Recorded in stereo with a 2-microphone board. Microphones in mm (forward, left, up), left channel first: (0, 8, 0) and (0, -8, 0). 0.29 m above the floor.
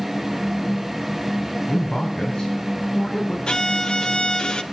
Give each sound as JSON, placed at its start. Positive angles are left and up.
{"t": 1.7, "sound": "a man speaking", "side_deg": 40, "distance_m": 2.5}
{"t": 3.5, "sound": "a violin", "side_deg": 70, "distance_m": 1.0}